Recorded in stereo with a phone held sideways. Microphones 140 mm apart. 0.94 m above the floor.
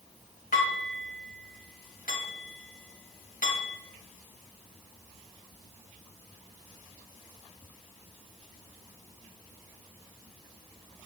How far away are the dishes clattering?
About 3 m.